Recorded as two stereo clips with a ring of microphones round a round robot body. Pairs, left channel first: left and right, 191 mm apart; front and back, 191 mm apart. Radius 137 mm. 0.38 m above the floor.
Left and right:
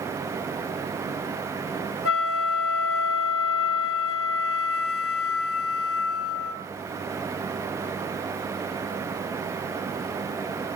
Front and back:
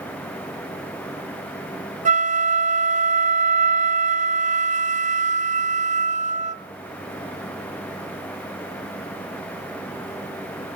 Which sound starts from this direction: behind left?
A flute, at 2.0 s.